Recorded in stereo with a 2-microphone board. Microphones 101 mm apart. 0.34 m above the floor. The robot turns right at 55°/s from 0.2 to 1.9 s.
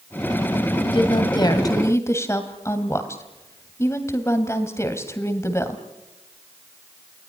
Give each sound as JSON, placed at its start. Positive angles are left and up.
{"t": 0.8, "sound": "a woman speaking", "azimuth_deg": 90, "distance_m": 2.0}